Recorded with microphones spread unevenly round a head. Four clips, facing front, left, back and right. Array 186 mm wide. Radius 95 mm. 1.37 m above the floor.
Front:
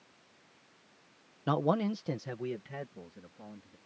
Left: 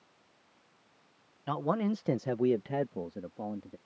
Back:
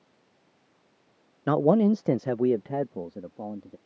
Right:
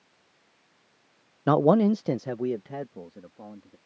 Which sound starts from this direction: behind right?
A man speaking, at 1.5 s.